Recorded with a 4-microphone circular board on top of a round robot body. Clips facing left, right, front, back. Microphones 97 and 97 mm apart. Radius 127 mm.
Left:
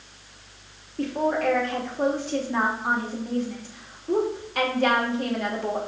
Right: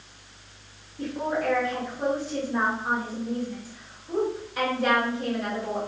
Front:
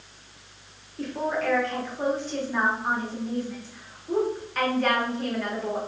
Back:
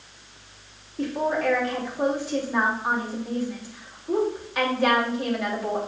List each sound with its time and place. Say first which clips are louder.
1.0 s a woman speaking: left 4 dB, back 3 dB; 100° left, 2.5 m